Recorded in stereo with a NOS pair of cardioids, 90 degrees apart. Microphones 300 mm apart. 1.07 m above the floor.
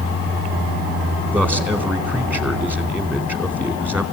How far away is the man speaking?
About 4 m.